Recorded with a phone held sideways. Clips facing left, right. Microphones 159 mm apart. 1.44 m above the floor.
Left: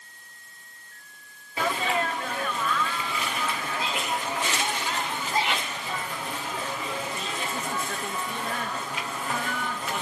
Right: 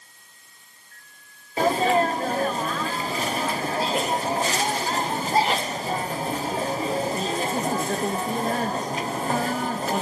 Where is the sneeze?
35° right (ahead or behind).